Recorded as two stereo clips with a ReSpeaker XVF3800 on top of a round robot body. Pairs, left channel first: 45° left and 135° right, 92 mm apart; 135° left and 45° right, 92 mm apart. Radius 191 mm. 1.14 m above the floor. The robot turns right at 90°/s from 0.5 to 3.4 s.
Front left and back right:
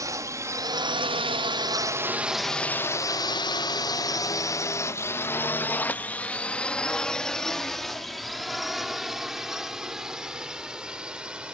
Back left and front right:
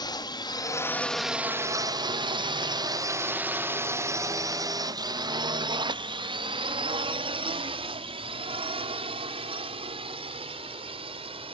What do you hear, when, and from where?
0.0 s a drone: 175° left; by 11.5 s 55° right